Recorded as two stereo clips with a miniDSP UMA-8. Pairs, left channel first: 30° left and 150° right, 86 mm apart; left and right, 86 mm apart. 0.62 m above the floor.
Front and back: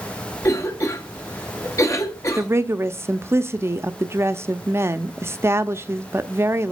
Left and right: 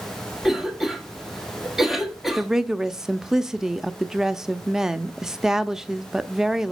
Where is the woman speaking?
170° right, 0.6 m.